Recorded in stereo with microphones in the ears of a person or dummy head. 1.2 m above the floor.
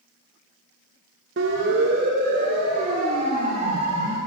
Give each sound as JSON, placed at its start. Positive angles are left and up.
{"t": 1.4, "sound": "a siren", "side_deg": -60, "distance_m": 2.5}